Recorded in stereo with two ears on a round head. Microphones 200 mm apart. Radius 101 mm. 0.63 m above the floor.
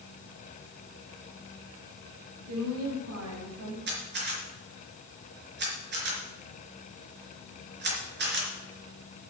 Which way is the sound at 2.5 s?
65° right (ahead or behind).